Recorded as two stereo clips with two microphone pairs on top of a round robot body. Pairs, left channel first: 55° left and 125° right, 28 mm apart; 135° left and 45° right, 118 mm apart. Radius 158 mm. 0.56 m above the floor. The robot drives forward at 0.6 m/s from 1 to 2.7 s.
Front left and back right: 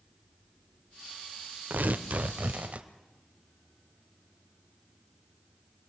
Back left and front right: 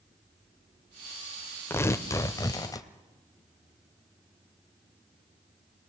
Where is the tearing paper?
150° right, 0.9 m; by 2.9 s 165° right, 1.5 m.